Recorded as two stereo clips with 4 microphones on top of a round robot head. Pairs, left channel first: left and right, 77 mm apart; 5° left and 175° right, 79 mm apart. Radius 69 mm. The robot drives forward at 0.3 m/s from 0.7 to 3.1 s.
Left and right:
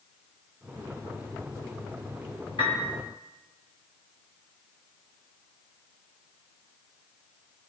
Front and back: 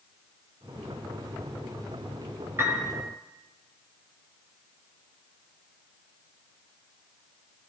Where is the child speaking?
No child speaking in this recording.